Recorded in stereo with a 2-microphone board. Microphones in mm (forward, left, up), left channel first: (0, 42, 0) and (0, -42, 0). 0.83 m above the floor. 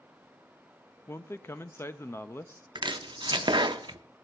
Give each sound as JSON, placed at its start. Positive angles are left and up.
{"t": 1.1, "sound": "a man speaking", "side_deg": 30, "distance_m": 0.5}
{"t": 2.8, "sound": "chopping", "side_deg": -65, "distance_m": 0.6}